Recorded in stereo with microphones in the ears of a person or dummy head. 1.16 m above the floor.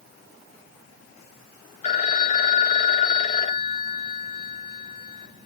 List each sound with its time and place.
1.8 s a phone ringing: 40° left (ahead or behind), 1.0 m